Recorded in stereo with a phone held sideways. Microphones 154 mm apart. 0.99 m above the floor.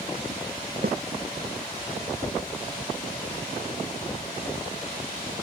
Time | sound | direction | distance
0.8 | a snare drum | 85° right | ?